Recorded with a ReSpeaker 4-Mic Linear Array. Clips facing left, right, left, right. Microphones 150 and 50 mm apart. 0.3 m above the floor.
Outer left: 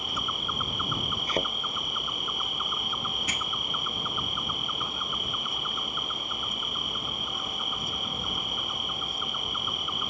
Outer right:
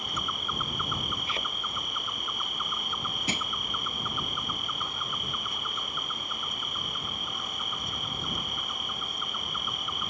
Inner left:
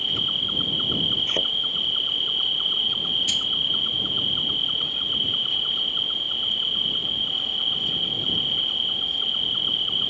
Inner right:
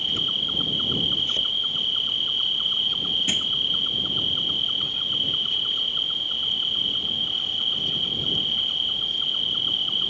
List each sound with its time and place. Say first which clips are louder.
0.0 s an insect: outer left 1 dB, even; 5° left (ahead or behind)
1.3 s a thud: outer left 7 dB, inner left 1 dB; 40° left (ahead or behind)
3.3 s crushing: outer right 3 dB, even; 30° right (ahead or behind)